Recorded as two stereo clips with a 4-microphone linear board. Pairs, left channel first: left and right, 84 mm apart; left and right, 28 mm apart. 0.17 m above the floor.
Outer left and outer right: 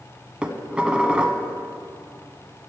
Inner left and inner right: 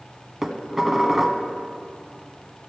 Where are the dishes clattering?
10° right (ahead or behind), 0.8 m.